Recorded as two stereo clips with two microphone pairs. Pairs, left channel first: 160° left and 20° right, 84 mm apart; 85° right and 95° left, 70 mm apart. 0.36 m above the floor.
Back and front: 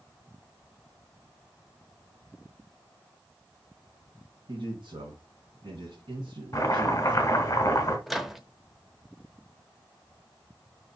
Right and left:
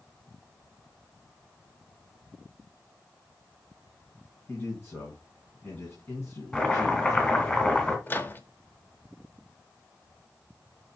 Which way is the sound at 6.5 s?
155° right.